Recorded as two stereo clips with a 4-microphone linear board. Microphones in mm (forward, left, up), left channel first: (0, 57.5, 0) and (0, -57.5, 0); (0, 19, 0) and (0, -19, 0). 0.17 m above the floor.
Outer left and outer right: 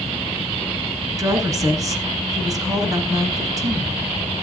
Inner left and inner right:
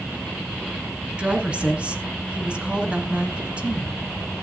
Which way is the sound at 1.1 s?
30° right (ahead or behind).